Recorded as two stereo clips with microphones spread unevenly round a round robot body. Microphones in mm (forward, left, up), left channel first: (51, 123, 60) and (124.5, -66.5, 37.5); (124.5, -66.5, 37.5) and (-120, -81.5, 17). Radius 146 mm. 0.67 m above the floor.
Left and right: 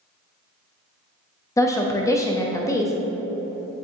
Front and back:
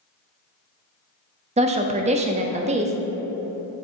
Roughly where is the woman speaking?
Behind.